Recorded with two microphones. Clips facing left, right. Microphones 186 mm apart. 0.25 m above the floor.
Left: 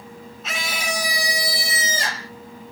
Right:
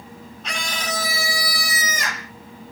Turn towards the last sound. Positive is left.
turn(degrees=35)  # may be behind; listen again after turning